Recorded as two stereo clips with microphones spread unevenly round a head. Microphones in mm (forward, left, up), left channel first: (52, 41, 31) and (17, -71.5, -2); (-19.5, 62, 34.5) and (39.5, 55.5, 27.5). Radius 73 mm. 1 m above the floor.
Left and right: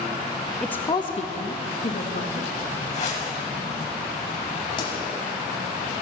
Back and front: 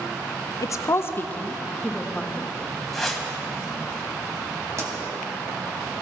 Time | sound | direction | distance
0.6 | a woman speaking | 170° left | 0.6 m
2.9 | a whoosh | 95° left | 1.6 m
4.8 | a pop | 30° left | 2 m